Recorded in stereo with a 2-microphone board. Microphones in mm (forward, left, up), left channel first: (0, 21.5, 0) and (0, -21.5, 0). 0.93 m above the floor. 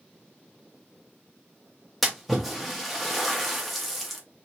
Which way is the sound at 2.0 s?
Centre (ahead or behind).